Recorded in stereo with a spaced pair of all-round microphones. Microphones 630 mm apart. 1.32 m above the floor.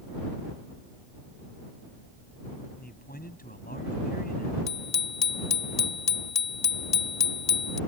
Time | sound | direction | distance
2.8 | a man speaking | 15° left (ahead or behind) | ?
4.7 | a bicycle bell | 80° left | ?